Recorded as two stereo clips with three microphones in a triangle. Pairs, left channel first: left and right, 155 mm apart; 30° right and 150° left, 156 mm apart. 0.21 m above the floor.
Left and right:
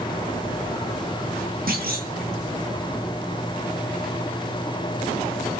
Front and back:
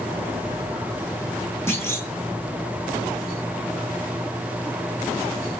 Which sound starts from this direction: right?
A clunk, at 1.7 s.